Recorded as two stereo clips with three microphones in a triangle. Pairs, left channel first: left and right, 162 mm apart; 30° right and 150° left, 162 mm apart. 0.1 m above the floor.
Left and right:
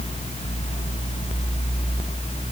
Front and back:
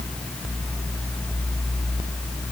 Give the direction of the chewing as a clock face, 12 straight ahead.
No chewing in this recording.